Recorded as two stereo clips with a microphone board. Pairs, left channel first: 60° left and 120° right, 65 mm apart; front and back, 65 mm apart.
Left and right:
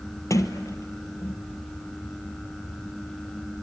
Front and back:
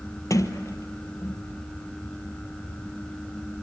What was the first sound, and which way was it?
A sliding door, 30° left.